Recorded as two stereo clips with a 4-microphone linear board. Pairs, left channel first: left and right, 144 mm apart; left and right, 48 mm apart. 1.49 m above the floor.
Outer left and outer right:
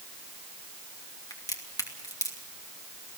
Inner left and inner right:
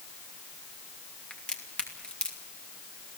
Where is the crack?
25° left (ahead or behind), 2.5 m.